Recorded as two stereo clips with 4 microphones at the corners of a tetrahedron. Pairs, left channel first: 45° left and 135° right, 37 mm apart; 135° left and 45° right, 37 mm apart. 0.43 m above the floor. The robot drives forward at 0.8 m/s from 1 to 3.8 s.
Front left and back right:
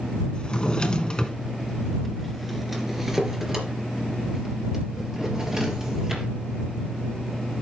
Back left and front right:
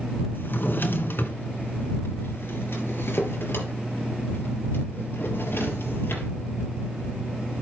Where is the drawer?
110° left, 1.5 m; by 6.3 s 155° left, 3 m.